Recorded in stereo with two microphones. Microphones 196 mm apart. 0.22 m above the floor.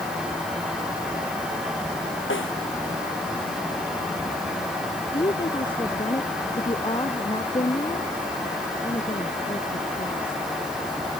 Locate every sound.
2.3 s a snare drum: 85° left
5.1 s a woman speaking: 25° left (ahead or behind)